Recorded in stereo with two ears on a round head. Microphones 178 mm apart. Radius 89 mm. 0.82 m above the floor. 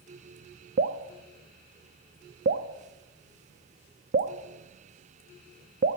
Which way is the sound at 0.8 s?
50° right (ahead or behind).